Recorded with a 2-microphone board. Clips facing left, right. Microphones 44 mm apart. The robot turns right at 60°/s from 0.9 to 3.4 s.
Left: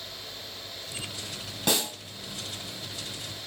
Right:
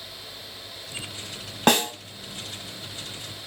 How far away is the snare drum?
About 1.2 m.